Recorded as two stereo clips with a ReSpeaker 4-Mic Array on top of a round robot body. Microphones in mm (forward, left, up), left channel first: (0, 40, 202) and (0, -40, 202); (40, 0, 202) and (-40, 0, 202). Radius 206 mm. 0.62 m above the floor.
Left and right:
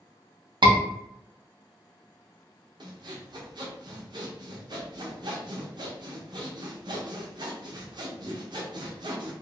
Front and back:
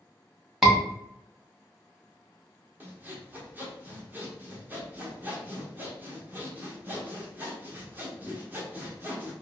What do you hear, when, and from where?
0.6 s a scream: 95° right, 1.2 m
2.8 s sawing: 115° right, 1.0 m